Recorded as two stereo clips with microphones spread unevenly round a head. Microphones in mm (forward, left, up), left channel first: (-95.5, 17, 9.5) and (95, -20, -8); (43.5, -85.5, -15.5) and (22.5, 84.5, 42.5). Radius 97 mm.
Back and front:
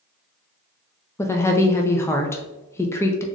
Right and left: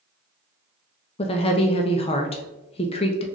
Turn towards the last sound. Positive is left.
turn(degrees=-115)